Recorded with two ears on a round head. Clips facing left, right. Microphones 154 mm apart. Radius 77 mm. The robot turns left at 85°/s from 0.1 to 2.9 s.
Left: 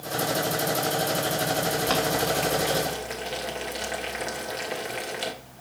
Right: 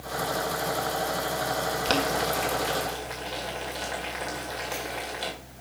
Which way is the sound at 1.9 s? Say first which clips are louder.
Right 1 dB; 40° right (ahead or behind).